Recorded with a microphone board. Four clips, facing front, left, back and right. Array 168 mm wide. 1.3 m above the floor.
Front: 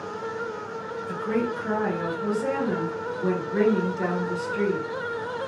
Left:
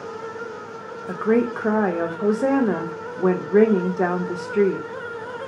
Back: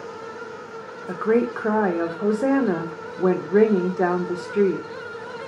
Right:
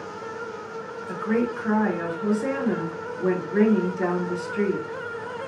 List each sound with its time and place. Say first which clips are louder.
1.1 s a woman speaking: left 5 dB, back 6 dB; 135° left, 0.7 m